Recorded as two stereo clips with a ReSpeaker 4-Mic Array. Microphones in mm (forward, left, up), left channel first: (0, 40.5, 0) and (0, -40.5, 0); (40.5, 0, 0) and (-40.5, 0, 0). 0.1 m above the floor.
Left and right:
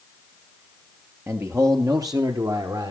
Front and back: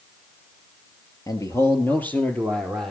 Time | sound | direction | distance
1.3 | a man speaking | 35° right | 2.5 m